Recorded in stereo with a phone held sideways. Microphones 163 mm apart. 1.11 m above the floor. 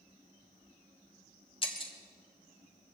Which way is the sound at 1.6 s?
35° left (ahead or behind).